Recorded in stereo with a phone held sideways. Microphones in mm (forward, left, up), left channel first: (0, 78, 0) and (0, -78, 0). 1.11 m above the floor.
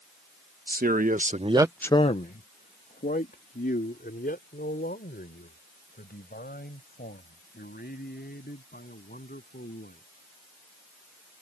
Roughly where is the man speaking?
Right.